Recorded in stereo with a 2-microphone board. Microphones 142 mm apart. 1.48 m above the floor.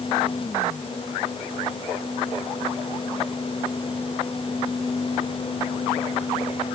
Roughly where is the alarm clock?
I don't hear an alarm clock.